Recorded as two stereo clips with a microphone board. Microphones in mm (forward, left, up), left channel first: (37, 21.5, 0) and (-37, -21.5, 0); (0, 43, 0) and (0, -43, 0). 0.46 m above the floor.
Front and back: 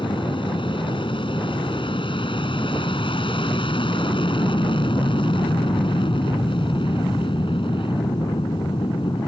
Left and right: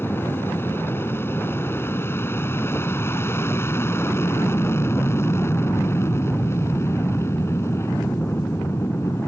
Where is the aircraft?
25° left; by 9.3 s 30° left.